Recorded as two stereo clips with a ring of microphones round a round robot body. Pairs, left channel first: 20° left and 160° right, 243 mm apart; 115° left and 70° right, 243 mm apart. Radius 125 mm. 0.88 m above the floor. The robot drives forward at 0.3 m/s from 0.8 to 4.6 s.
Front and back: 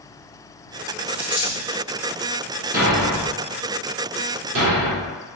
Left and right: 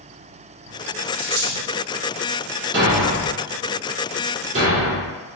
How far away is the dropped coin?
About 1.3 m.